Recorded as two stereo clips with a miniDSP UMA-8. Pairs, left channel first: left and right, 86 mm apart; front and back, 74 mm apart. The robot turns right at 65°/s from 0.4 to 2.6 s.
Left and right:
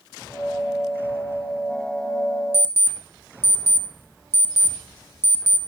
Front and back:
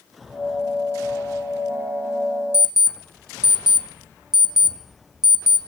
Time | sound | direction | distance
2.5 | an alarm clock | 105° right | 0.5 m